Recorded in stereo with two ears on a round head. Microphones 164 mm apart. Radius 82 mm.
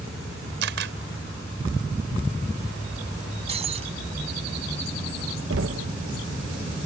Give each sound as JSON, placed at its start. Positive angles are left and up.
{"t": 0.6, "sound": "a camera shutter", "side_deg": -65}
{"t": 3.5, "sound": "breaking glass", "side_deg": -35}
{"t": 5.5, "sound": "knocking", "side_deg": -75}